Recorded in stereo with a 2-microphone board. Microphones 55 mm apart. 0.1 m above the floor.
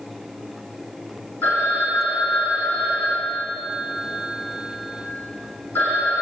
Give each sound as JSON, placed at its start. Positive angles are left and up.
{"t": 1.4, "sound": "a phone ringing", "side_deg": 35, "distance_m": 3.5}